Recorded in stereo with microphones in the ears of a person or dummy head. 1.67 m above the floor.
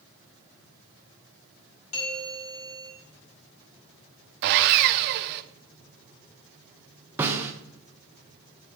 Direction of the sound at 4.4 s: 55° right (ahead or behind).